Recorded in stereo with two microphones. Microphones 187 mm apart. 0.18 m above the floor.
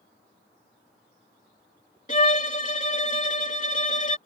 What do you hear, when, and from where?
2.1 s a violin: 40° left (ahead or behind)